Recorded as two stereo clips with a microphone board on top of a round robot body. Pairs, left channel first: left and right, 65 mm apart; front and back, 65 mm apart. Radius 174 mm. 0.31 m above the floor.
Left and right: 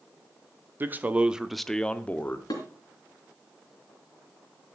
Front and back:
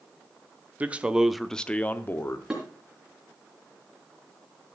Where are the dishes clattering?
100° left, 3.5 m.